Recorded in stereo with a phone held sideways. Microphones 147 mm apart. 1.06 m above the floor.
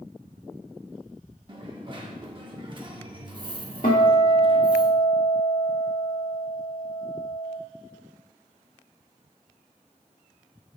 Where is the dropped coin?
35° right (ahead or behind), 1.0 m.